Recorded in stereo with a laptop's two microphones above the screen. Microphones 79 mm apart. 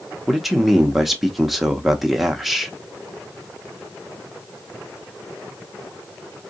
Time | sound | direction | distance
0.3 | a man speaking | centre (ahead or behind) | 0.7 m